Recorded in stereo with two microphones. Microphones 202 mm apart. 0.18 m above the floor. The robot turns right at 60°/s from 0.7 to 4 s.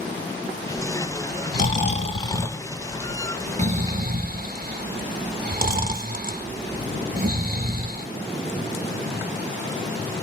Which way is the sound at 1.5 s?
45° left (ahead or behind).